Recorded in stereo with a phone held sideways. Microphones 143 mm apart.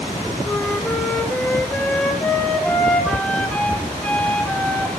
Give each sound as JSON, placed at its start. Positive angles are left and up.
{"t": 0.4, "sound": "a flute", "side_deg": 5, "distance_m": 1.0}